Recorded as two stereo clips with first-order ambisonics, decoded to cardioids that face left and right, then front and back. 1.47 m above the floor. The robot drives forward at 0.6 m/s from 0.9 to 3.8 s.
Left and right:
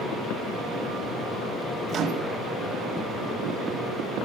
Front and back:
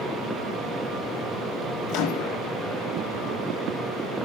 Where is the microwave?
35° right, 1.8 m; by 2.4 s 40° right, 1.5 m.